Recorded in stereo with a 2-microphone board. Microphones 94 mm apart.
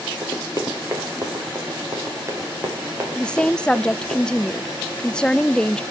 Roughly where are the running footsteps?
Right.